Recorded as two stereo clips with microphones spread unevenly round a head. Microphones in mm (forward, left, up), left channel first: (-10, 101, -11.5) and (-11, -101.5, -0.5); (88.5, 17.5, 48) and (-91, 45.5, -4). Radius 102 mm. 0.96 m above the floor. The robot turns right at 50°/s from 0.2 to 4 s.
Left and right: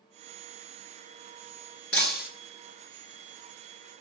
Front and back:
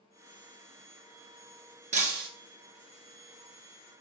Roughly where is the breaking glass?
Left.